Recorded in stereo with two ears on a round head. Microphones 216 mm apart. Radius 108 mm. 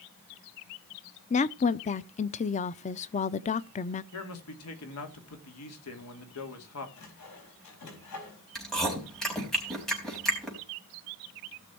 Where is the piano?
No piano in this recording.